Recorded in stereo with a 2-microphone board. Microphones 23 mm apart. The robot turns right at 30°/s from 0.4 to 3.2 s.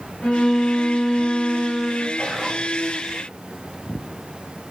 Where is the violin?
120° left, 9.5 m; by 2.1 s 170° left, 9.5 m.